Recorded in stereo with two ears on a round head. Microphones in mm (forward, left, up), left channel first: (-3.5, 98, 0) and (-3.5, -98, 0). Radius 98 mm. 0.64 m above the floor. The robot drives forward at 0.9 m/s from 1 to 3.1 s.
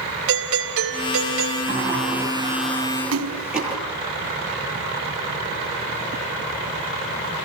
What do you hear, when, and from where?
0.3 s a doorbell: 70° right (ahead or behind), 4.5 m
1.7 s a sliding door: 5° right (ahead or behind), 7 m
3.1 s a splash: 75° right (ahead or behind), 2.5 m